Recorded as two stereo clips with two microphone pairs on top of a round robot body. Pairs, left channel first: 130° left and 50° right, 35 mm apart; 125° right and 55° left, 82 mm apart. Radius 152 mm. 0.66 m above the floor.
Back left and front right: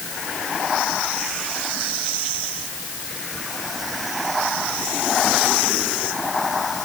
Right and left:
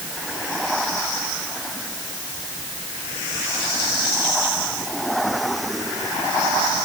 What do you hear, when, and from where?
Only background noise.